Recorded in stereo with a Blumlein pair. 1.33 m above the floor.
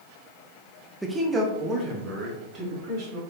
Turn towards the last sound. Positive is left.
turn(degrees=-35)